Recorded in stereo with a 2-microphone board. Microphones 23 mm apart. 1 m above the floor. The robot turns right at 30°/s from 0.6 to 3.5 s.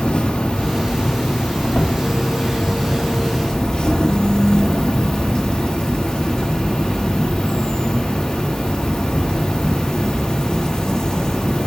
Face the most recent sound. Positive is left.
turn(degrees=130)